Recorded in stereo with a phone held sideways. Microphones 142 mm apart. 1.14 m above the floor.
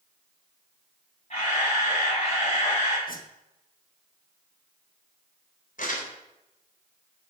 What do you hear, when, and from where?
1.3 s a camera shutter: 50° left (ahead or behind), 8.5 m
3.1 s a whoosh: 75° left (ahead or behind), 1.2 m
5.8 s crumpling: 70° left (ahead or behind), 3.5 m